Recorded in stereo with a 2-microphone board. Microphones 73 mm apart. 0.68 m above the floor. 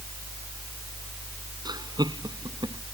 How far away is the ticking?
I don't hear ticking.